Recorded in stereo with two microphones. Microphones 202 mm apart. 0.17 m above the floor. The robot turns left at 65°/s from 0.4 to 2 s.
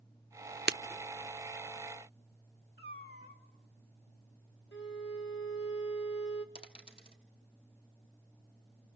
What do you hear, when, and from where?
0.7 s breaking glass: 55° right (ahead or behind), 0.8 m
2.8 s a cat meowing: 50° left (ahead or behind), 2.0 m
4.7 s a violin: 70° left (ahead or behind), 1.5 m
6.5 s a dropped coin: 25° left (ahead or behind), 1.9 m